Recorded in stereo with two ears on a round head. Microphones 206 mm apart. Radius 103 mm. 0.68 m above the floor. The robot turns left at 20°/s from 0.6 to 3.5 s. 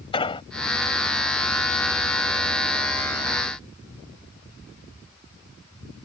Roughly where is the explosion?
Left.